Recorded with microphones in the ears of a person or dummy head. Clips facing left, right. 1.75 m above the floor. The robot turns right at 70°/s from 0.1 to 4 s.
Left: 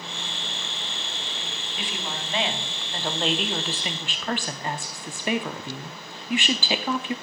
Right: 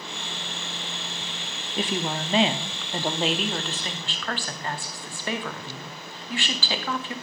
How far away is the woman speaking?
About 0.5 m.